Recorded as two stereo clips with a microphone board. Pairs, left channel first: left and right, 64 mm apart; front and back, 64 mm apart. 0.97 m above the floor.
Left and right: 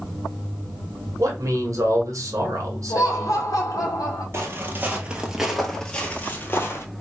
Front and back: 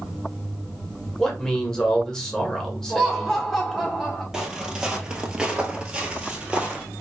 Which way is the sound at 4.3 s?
100° right.